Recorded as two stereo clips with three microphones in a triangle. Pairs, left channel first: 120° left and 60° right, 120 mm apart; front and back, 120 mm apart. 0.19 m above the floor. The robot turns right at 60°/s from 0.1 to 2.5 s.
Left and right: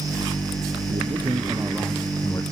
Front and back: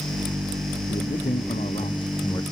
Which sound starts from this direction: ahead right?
A man speaking, at 0.9 s.